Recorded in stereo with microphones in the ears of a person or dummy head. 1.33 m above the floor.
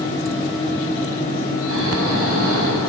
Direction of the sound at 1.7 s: 65° right (ahead or behind).